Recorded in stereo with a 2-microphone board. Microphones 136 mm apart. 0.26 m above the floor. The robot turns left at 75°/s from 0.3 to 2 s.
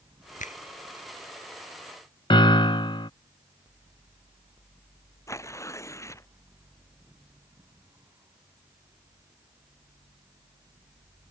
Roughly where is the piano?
Left.